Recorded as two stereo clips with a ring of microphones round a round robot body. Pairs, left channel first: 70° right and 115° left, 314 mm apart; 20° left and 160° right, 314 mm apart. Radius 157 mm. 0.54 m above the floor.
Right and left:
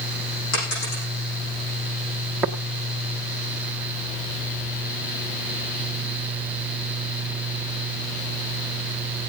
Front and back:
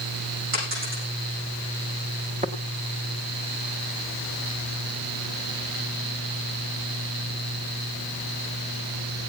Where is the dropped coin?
105° right, 9.5 m.